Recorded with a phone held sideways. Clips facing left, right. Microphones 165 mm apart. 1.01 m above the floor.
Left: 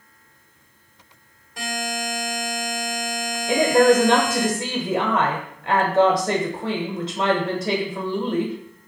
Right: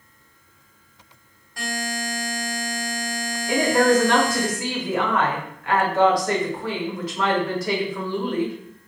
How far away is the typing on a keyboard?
I don't hear typing on a keyboard.